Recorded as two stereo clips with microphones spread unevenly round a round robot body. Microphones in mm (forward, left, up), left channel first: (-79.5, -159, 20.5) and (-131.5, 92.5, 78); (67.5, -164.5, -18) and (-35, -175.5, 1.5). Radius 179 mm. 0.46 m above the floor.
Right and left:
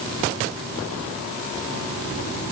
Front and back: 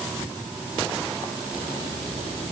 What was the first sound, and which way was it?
Only background noise.